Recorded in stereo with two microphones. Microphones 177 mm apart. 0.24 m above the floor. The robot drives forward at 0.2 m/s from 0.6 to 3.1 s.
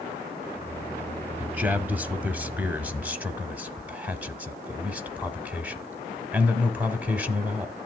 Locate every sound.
1.4 s a man speaking: 10° right (ahead or behind), 1.1 m